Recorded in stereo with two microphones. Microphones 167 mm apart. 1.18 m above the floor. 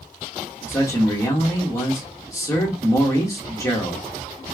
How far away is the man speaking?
About 1.5 m.